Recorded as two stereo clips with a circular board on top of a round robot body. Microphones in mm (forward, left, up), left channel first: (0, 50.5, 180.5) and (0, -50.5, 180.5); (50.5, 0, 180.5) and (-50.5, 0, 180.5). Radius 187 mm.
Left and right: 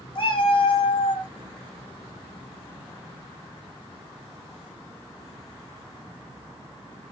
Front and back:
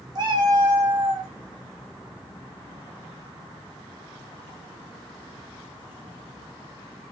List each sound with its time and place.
0.1 s a cat meowing: 130° left, 0.6 m